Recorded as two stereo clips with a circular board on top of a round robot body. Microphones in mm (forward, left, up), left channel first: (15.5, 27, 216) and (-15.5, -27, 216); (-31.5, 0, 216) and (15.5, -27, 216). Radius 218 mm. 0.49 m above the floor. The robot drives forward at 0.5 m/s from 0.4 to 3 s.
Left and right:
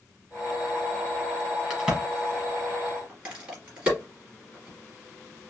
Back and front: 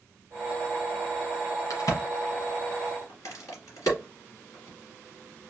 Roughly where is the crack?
Behind.